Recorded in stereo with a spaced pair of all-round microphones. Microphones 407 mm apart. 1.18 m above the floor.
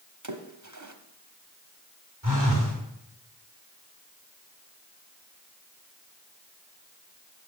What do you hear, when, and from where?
0.2 s a splash: 45° right (ahead or behind), 1.0 m
2.2 s a phone buzzing: 50° right (ahead or behind), 4 m